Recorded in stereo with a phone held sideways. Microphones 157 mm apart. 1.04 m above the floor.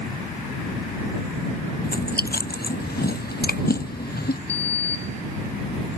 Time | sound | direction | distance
1.8 | chewing | 80° left | ?
4.5 | a sliding door | 40° left (ahead or behind) | ?